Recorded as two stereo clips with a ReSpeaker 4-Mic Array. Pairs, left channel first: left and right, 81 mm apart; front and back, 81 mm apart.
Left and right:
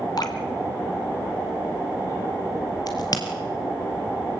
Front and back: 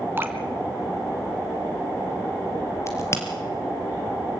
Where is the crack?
55° left, 3.5 m.